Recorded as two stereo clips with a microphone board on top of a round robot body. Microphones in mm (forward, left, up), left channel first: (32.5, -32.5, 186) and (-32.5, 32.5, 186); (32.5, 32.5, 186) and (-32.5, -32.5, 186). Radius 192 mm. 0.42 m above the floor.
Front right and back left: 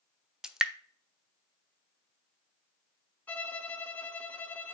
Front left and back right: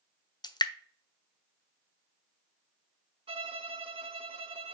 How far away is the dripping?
About 0.7 m.